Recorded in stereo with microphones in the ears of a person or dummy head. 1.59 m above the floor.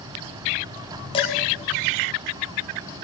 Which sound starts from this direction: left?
Dishes clattering, at 1.1 s.